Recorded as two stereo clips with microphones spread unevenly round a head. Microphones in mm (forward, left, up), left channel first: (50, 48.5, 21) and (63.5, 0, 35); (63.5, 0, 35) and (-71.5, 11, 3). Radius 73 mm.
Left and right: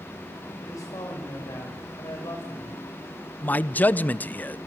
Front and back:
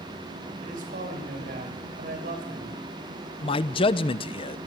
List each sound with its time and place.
0.6 s a man speaking: 145° left, 6.5 m
3.4 s a man speaking: 50° left, 0.9 m